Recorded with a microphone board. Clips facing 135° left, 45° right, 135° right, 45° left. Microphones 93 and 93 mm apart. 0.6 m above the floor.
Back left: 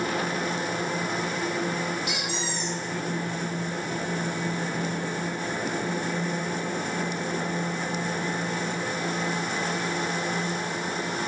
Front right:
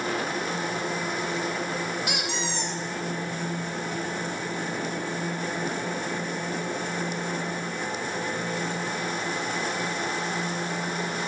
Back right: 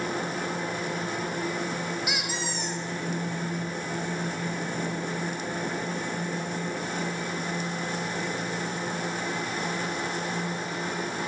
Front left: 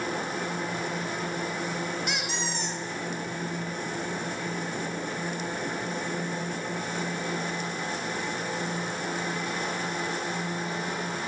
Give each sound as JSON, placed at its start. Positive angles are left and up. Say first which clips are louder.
{"t": 2.1, "sound": "a squeak", "louder": "front right 1 dB, even", "azimuth_deg": -50, "distance_m": 0.6}